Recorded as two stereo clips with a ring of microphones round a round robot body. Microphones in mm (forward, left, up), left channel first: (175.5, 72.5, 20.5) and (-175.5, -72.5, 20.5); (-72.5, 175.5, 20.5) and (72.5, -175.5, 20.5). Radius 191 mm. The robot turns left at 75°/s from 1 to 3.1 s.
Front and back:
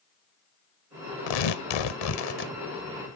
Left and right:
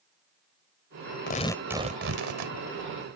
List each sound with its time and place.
1.3 s tearing paper: 50° left; by 2.5 s 45° right